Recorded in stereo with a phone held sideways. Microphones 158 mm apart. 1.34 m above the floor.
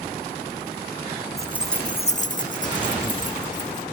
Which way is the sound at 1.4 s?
20° right (ahead or behind).